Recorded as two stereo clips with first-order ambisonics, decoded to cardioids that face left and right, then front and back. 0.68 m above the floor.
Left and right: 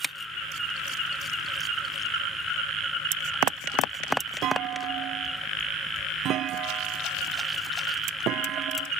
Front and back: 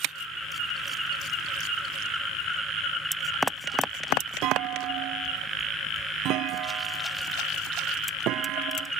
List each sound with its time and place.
4.4 s a clunk: 140° right